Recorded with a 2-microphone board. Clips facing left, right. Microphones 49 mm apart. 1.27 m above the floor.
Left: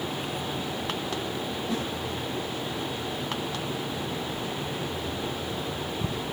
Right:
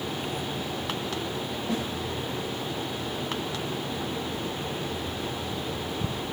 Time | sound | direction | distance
1.7 | a snare drum | 40° right (ahead or behind) | 4.5 m